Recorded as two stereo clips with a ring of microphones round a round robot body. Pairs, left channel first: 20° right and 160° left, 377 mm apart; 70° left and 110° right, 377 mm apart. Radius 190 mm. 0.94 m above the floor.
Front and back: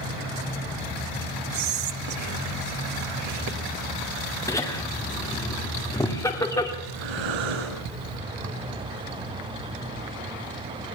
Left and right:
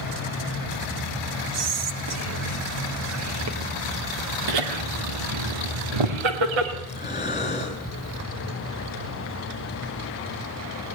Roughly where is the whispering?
Behind.